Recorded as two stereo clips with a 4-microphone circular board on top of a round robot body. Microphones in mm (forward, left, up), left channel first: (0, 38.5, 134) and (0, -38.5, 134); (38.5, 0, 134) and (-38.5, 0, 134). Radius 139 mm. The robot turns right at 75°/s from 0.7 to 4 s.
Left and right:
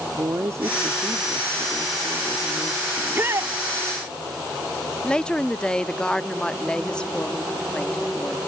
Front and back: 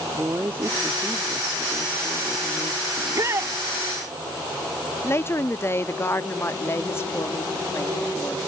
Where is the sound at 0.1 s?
125° right; by 2.9 s 35° left.